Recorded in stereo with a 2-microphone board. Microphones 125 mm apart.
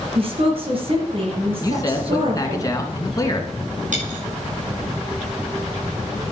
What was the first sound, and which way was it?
A woman speaking, 50° right (ahead or behind).